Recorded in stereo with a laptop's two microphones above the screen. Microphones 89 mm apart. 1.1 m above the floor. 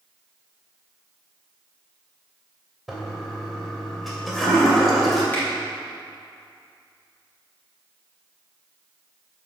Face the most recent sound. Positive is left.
turn(degrees=20)  # may be behind; listen again after turning